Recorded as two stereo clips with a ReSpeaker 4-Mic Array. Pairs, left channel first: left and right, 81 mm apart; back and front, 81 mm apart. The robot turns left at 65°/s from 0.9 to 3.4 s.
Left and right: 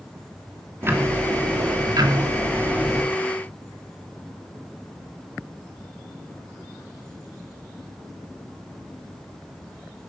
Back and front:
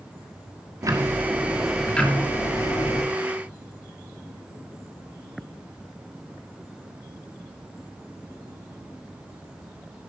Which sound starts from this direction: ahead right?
Ticking, at 0.8 s.